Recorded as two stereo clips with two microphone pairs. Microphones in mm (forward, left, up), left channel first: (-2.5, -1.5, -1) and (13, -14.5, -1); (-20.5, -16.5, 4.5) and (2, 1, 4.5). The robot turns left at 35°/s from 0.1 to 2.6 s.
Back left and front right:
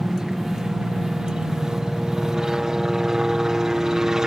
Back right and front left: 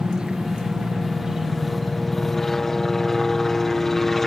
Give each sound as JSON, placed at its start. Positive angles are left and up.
{"t": 0.0, "sound": "a helicopter", "azimuth_deg": 10}